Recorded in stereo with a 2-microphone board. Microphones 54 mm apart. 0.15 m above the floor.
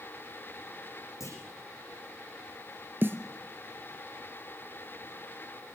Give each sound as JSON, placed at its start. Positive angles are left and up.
{"t": 1.2, "sound": "a clunk", "side_deg": 75, "distance_m": 9.5}
{"t": 3.0, "sound": "a snare drum", "side_deg": -40, "distance_m": 1.6}